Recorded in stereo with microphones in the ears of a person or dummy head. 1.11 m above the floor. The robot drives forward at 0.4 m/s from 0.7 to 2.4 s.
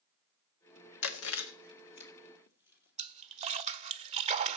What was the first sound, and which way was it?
Chewing, 75° left (ahead or behind).